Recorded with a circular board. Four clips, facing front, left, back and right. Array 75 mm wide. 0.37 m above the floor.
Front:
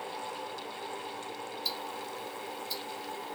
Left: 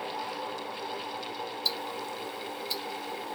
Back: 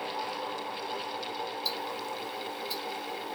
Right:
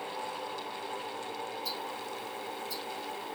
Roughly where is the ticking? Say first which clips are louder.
Left 2 dB, back 3 dB; left.